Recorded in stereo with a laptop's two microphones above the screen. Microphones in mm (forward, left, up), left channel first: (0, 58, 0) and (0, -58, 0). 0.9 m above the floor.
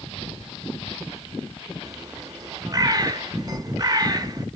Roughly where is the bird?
Right.